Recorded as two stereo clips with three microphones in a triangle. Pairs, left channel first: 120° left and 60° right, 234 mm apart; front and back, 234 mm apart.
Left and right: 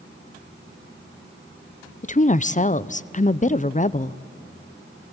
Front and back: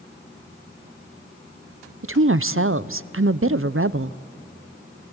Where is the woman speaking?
175° left, 0.6 m.